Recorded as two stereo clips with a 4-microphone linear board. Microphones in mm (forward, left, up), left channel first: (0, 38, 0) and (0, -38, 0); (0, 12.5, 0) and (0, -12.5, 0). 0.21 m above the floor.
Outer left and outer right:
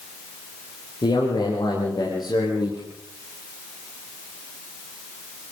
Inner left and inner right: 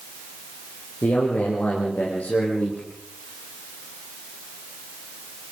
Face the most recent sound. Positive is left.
turn(degrees=65)  # may be behind; listen again after turning